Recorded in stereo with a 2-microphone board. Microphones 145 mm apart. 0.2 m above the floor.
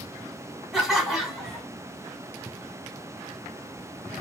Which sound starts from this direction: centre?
Laughter, at 0.7 s.